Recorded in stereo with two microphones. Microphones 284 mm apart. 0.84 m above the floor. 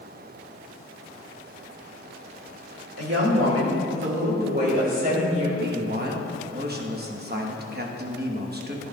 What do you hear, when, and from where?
3.0 s a woman speaking: 60° right (ahead or behind), 2.5 m; by 5.5 s 25° right (ahead or behind), 3.5 m
5.6 s a man speaking: 35° right (ahead or behind), 1.1 m